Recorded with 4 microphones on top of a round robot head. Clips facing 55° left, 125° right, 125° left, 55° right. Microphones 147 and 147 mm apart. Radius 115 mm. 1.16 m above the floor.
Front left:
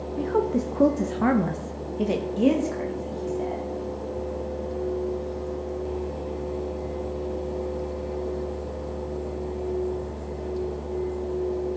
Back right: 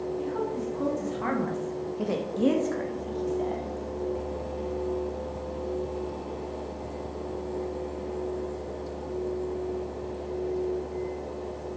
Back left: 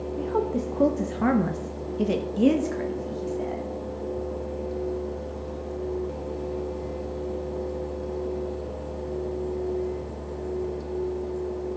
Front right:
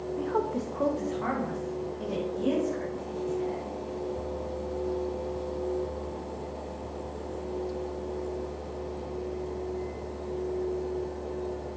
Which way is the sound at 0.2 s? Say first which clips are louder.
Front left 6 dB, back left 4 dB; 40° left.